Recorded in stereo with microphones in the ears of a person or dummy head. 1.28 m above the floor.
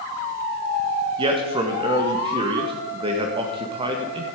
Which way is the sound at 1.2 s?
25° right (ahead or behind).